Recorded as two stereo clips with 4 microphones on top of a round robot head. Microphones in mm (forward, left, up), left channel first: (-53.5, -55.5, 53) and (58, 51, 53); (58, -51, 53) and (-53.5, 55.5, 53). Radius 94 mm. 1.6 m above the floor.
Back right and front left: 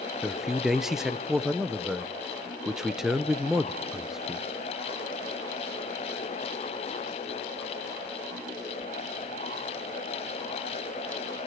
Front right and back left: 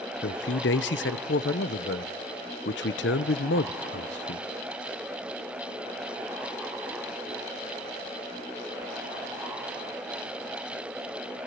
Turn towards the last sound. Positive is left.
turn(degrees=-45)